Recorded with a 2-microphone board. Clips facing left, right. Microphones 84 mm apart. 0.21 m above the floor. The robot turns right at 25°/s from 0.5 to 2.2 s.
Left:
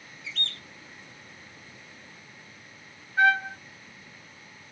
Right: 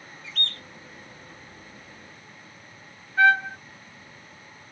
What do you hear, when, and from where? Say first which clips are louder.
0.2 s a bird: right 2 dB; 50° right (ahead or behind), 0.7 m; by 0.6 s 45° right (ahead or behind), 0.7 m
3.2 s a trumpet: right 3 dB; 15° left (ahead or behind), 2.5 m